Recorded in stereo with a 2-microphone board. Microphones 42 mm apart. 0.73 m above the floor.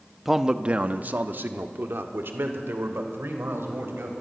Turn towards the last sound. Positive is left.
turn(degrees=-80)